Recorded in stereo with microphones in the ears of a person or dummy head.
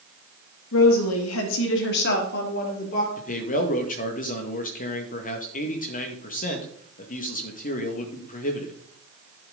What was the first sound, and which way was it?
A woman speaking, 65° left (ahead or behind).